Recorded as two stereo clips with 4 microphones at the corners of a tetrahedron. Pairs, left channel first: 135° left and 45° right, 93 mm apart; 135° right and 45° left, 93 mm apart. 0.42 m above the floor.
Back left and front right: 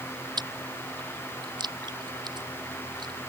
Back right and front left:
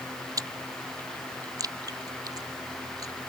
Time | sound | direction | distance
0.4 | chewing | 5° right | ?